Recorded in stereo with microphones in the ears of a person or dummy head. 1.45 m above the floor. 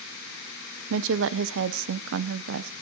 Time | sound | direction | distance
0.9 | a woman speaking | 70° right (ahead or behind) | 0.6 m